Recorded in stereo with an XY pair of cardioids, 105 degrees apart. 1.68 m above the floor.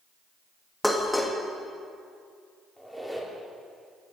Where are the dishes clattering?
10° left, 2.0 m.